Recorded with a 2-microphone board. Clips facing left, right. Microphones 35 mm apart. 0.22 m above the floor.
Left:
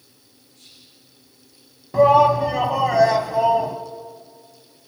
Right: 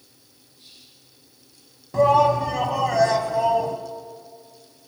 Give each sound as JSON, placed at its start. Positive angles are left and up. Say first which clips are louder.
{"t": 0.5, "sound": "whispering", "louder": "even", "side_deg": 80, "distance_m": 9.0}
{"t": 1.9, "sound": "a shout", "louder": "left 3 dB", "side_deg": 10, "distance_m": 1.3}